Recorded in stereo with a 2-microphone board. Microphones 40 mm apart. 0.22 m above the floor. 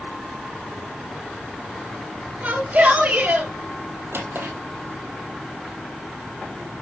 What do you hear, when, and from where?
2.4 s a shout: 45° right (ahead or behind), 3.5 m; by 3.5 s 50° right (ahead or behind), 4 m
4.1 s a drawer: 70° right (ahead or behind), 1.8 m